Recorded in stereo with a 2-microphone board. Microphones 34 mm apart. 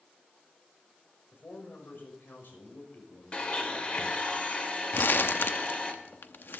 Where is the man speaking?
80° left, 6 m; by 4.3 s 60° left (ahead or behind), 5 m.